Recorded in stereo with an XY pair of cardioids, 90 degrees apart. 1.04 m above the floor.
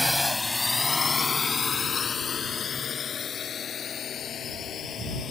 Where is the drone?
10° left; by 5.3 s 65° left.